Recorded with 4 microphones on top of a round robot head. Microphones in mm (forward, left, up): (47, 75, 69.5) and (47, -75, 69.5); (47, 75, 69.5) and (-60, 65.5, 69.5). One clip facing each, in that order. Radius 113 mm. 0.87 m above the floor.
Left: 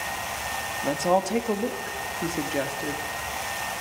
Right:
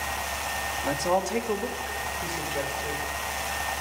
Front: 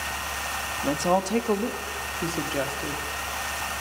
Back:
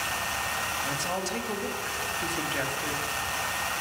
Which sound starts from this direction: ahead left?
A woman speaking, at 0.8 s.